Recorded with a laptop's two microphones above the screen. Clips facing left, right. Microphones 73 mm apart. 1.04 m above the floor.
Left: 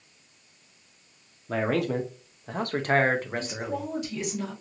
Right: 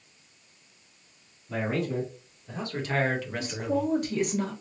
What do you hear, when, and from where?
1.5 s a man speaking: 75° left (ahead or behind), 0.7 m; by 3.9 s 30° left (ahead or behind), 1.2 m
3.3 s a woman speaking: 50° right (ahead or behind), 1.2 m